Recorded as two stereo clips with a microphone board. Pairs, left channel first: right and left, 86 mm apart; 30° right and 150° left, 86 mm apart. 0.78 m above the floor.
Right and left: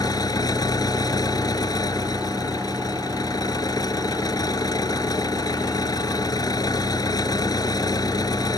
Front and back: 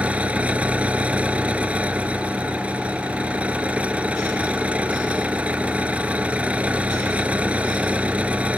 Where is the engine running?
135° right.